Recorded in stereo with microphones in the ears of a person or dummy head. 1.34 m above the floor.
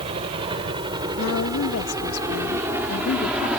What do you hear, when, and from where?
0.0 s a helicopter: 30° right (ahead or behind); by 3.6 s centre (ahead or behind)
1.2 s a woman speaking: 80° left